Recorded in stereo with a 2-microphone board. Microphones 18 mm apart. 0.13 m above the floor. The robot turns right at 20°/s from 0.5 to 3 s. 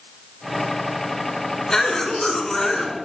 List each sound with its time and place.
1.7 s a cough: 30° left (ahead or behind), 1.5 m; by 3.0 s 25° left (ahead or behind), 1.5 m